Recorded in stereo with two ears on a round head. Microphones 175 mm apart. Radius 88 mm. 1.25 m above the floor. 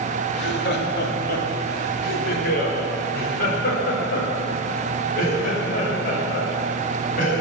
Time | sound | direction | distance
0.3 | laughter | 65° left (ahead or behind) | 2.5 m